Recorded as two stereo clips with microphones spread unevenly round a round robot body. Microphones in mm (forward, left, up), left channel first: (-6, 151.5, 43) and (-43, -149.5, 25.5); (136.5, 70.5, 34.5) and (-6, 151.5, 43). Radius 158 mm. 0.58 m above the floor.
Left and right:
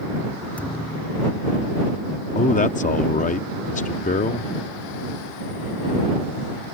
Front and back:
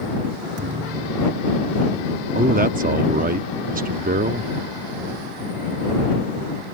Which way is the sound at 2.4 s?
145° left.